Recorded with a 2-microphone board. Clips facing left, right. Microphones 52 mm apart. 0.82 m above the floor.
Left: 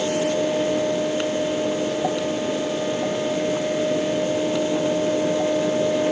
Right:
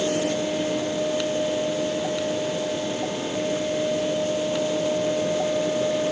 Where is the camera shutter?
I don't hear a camera shutter.